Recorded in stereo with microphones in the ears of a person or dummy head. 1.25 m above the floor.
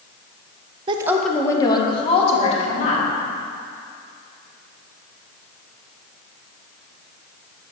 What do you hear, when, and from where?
0.9 s a woman speaking: 35° right (ahead or behind), 0.6 m; by 3.0 s 40° left (ahead or behind), 2.5 m